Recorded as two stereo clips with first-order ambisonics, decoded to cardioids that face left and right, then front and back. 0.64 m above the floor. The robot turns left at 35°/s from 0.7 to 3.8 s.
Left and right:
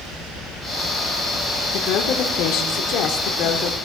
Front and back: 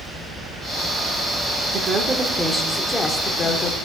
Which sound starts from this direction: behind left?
A woman speaking, at 1.7 s.